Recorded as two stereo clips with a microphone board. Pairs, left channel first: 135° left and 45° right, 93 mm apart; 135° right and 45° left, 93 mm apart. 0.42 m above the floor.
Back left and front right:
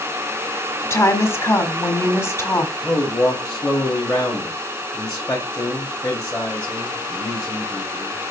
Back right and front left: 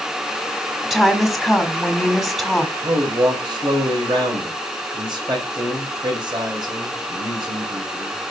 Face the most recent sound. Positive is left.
turn(degrees=60)